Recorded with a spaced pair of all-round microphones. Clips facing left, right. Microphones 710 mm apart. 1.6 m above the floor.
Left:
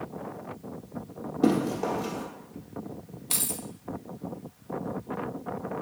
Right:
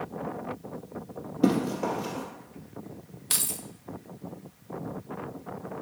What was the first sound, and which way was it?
Running footsteps, 10° right (ahead or behind).